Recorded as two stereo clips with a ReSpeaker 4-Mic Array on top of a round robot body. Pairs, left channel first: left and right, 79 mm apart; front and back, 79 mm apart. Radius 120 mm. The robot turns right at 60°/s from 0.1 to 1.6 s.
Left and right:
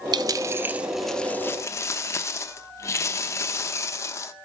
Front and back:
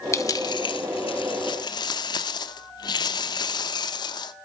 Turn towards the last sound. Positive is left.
turn(degrees=35)